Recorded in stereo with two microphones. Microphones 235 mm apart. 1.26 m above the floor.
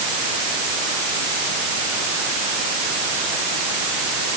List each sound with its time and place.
Only background noise.